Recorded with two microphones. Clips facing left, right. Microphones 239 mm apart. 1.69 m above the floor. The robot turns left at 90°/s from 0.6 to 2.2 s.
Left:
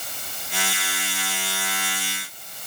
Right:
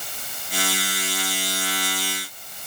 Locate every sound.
Only background noise.